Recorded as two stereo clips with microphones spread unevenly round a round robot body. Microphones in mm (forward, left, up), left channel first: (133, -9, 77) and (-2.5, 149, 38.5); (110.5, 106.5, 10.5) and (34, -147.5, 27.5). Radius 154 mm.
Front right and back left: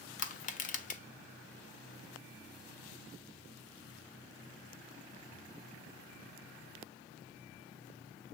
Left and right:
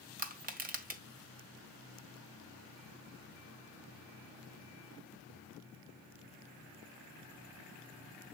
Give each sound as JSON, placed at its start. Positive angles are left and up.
{"t": 0.2, "sound": "crushing", "azimuth_deg": -80, "distance_m": 1.2}